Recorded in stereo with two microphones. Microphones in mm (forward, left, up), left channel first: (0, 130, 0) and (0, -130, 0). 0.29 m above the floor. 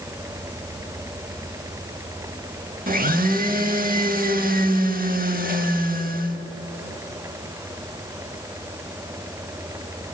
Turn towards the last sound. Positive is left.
turn(degrees=-35)  # may be behind; listen again after turning